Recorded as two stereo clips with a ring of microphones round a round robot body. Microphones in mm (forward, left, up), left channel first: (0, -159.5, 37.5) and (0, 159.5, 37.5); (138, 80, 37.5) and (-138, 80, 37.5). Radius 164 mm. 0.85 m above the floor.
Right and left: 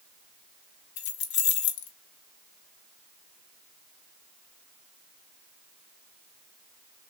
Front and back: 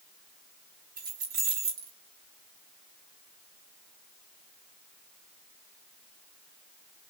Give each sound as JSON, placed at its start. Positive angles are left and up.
{"t": 1.0, "sound": "keys jangling", "azimuth_deg": -115, "distance_m": 1.0}